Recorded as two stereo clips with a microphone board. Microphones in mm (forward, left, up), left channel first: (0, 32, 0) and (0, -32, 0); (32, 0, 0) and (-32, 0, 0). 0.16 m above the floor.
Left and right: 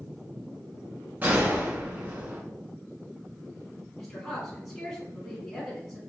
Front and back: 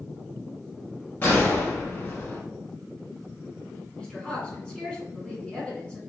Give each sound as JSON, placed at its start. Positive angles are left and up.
{"t": 1.2, "sound": "a gunshot", "azimuth_deg": -40, "distance_m": 0.8}
{"t": 4.0, "sound": "a woman speaking", "azimuth_deg": 10, "distance_m": 1.4}